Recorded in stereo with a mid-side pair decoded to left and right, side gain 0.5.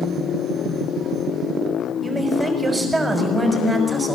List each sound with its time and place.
2.0 s a man speaking: 25° right, 6 m